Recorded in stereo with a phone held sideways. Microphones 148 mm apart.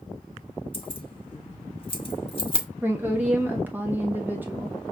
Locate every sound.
0.7 s keys jangling: 35° left (ahead or behind), 1.0 m
2.8 s a woman speaking: 15° right (ahead or behind), 0.7 m